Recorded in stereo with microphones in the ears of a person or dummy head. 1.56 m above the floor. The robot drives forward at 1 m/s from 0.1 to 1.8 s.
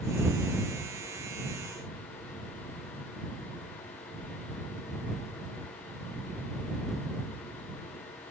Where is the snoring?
No snoring in this recording.